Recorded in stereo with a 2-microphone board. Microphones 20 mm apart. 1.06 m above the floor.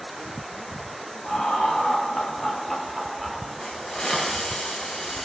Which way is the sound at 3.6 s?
35° left (ahead or behind).